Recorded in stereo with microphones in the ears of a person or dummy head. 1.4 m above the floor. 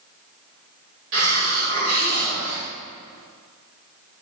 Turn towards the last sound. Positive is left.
turn(degrees=-60)  # may be behind; listen again after turning